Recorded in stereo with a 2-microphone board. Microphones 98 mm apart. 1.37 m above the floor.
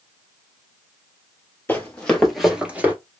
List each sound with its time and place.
1.7 s running footsteps: 20° left (ahead or behind), 1.9 m; by 2.9 s 20° right (ahead or behind), 1.4 m